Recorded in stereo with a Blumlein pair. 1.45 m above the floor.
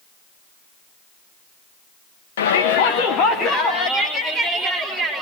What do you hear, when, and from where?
2.4 s a shout: 60° left, 1.7 m; by 5.2 s 5° left, 3.5 m